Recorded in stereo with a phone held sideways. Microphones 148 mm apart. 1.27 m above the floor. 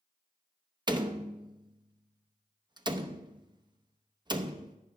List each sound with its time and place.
0.9 s a door slam: 30° right (ahead or behind), 0.7 m